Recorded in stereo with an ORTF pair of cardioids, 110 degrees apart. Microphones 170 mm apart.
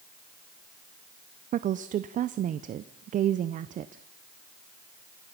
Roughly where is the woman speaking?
Ahead right.